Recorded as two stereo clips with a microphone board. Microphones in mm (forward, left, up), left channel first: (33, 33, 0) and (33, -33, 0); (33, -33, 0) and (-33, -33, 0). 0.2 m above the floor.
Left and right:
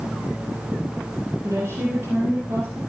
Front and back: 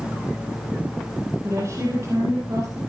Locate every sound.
1.4 s a woman speaking: 135° right, 8.5 m